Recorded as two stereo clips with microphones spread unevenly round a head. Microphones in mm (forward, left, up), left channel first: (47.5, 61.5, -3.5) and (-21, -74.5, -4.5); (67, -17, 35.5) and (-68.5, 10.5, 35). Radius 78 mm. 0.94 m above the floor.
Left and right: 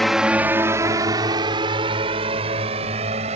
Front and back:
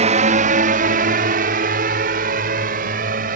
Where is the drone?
150° left; by 3.4 s 170° right.